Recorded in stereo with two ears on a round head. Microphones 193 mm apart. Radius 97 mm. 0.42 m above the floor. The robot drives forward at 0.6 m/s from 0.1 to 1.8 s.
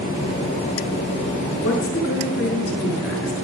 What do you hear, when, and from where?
1.6 s a woman speaking: 55° left (ahead or behind), 6 m